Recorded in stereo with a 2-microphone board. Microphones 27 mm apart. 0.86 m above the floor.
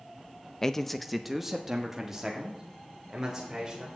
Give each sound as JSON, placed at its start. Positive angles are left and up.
{"t": 0.6, "sound": "a man speaking", "side_deg": 20, "distance_m": 0.5}